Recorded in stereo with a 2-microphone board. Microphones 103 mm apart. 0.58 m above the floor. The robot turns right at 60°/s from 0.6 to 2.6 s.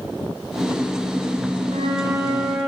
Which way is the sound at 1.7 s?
60° right.